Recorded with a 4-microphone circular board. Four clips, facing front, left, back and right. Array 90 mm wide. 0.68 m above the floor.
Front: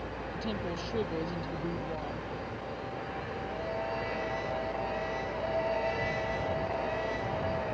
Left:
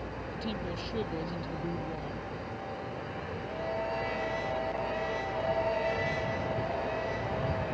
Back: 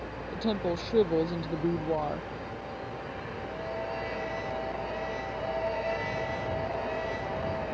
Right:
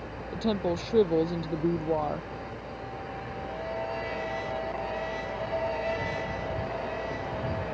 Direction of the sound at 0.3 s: 130° right.